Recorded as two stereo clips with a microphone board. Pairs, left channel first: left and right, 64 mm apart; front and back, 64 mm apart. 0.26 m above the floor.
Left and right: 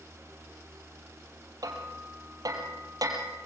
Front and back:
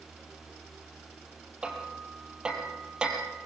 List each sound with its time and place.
1.6 s hammering: 105° right, 4.5 m